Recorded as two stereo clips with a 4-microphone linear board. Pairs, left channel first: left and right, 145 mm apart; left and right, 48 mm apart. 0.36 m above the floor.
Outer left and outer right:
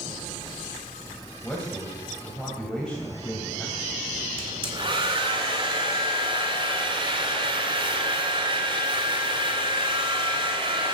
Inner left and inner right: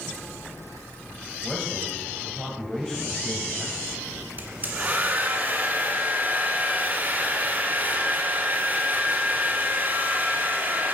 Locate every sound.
1.4 s a man speaking: 5° left (ahead or behind), 2 m
4.4 s a hair dryer: 35° right (ahead or behind), 2 m